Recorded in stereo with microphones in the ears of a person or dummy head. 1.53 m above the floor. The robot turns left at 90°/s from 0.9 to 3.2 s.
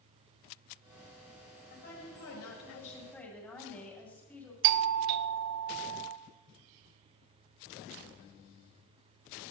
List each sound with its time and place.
1.7 s a woman speaking: 145° left, 7 m; by 4.5 s 10° left, 7 m
4.6 s a doorbell: 50° right (ahead or behind), 0.8 m